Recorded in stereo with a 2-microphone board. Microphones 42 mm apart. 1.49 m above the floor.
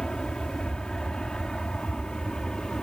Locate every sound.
0.0 s an aircraft: 20° left (ahead or behind)